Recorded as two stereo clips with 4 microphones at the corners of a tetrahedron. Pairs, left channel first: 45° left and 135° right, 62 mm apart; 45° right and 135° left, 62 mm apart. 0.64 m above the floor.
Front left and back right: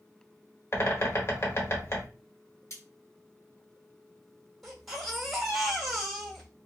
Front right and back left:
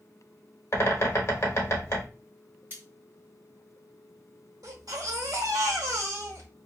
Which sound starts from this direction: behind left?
A baby crying, at 4.6 s.